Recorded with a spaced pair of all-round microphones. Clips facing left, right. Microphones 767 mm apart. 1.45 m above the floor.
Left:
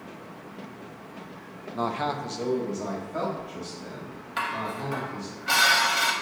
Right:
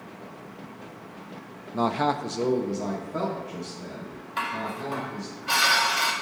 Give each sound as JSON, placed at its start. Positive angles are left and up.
{"t": 1.7, "sound": "a man speaking", "side_deg": -60, "distance_m": 0.5}
{"t": 4.4, "sound": "dishes clattering", "side_deg": 30, "distance_m": 0.6}